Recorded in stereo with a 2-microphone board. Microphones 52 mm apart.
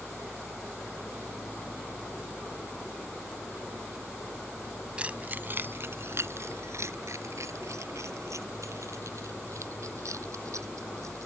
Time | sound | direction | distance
5.0 | keys jangling | 25° right (ahead or behind) | ?